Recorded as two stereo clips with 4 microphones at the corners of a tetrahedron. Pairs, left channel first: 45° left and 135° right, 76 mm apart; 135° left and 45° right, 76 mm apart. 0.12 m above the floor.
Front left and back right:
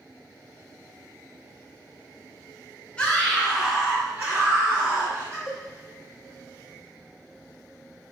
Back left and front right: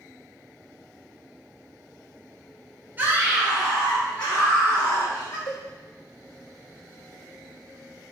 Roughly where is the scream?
Ahead.